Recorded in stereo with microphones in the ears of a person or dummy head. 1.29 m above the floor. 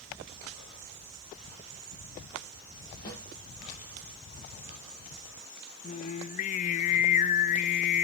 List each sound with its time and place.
3.0 s a snare drum: 20° left (ahead or behind), 6.5 m
5.8 s singing: 40° left (ahead or behind), 0.8 m